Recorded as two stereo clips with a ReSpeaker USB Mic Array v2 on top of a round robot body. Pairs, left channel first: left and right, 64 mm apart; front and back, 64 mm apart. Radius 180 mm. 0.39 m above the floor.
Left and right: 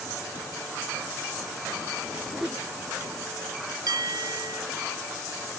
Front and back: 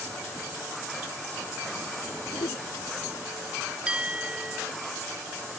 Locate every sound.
2.3 s a whoosh: 5° right
3.9 s a bell: 105° right